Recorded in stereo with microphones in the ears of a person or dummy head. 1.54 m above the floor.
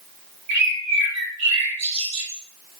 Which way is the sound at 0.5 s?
30° right (ahead or behind).